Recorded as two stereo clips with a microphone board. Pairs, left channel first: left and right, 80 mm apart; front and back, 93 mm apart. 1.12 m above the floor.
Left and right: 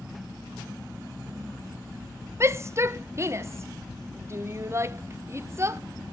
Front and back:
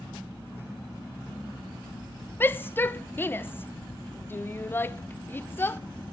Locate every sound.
2.4 s a shout: 55° right, 0.7 m